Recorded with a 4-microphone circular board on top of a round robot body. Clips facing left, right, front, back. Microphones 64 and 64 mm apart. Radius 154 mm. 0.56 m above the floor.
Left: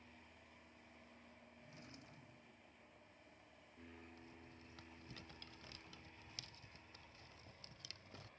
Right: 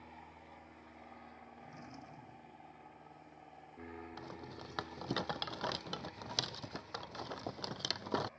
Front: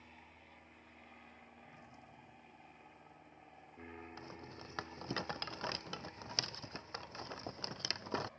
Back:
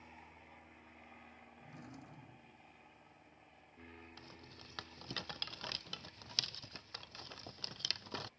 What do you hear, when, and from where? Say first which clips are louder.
0.0 s an aircraft: right 10 dB, back 2 dB; 105° right; by 8.4 s 35° right
1.6 s a drawer: right 8 dB, back 7 dB; 155° right
4.2 s a rattle: right 12 dB, front 6 dB; 70° right